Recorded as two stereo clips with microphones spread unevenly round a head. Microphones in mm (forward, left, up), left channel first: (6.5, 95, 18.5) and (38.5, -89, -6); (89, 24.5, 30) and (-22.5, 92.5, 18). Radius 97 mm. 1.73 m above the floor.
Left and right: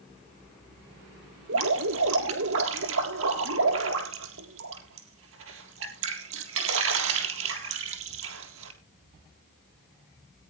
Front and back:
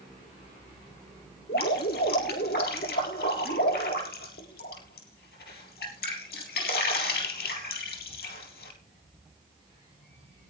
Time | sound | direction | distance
1.5 | dripping | 65° right | 3.5 m